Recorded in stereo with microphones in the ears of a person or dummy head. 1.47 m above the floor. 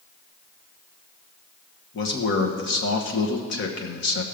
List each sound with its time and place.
1.9 s a man speaking: 65° left (ahead or behind), 1.3 m